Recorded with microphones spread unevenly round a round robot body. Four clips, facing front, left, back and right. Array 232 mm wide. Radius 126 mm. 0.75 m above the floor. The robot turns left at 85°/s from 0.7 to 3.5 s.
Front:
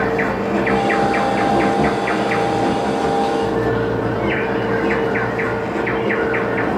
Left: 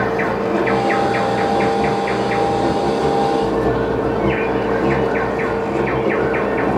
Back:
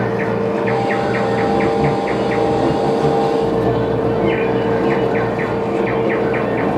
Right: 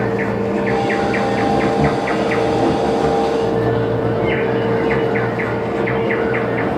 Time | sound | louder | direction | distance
0.0 | an insect | even, back 1 dB | 70° left | 2.0 m